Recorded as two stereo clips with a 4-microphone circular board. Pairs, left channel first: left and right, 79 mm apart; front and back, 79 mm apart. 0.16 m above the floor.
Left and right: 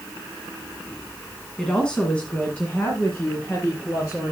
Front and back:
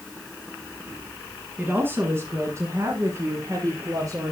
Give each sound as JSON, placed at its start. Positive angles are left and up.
{"t": 1.6, "sound": "a woman speaking", "azimuth_deg": 160, "distance_m": 1.6}